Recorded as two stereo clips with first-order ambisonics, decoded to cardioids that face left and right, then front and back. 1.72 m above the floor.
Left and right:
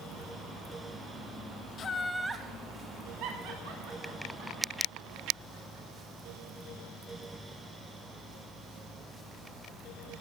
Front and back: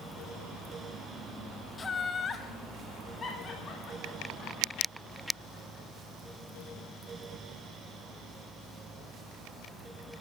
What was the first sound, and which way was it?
Laughter, 60° left.